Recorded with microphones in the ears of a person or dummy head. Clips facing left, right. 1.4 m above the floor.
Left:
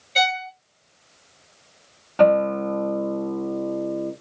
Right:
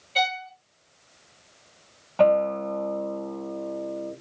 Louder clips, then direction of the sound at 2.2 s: Left 3 dB; 25° left (ahead or behind).